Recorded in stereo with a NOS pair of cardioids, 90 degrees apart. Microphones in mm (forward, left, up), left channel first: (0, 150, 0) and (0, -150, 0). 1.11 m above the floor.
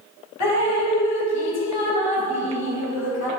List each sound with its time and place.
0.4 s dripping: 60° left, 2.5 m